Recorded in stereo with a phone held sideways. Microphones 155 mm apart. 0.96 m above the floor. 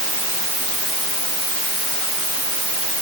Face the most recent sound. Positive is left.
No sound to turn to.